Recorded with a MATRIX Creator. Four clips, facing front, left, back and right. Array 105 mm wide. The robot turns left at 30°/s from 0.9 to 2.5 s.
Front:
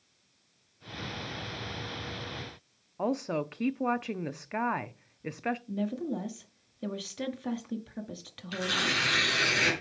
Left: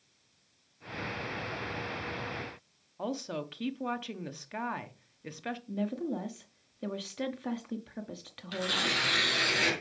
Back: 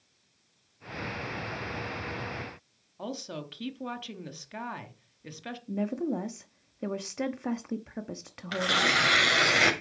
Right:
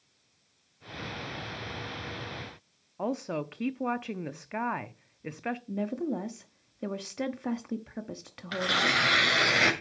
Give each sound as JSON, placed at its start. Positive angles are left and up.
{"t": 3.0, "sound": "a woman speaking", "azimuth_deg": -30, "distance_m": 0.7}
{"t": 5.7, "sound": "a woman speaking", "azimuth_deg": -150, "distance_m": 0.8}
{"t": 8.5, "sound": "tearing paper", "azimuth_deg": -145, "distance_m": 2.5}